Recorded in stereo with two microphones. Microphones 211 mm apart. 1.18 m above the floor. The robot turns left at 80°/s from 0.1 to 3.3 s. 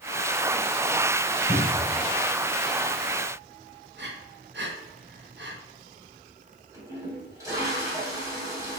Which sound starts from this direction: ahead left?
A cupboard door, at 1.5 s.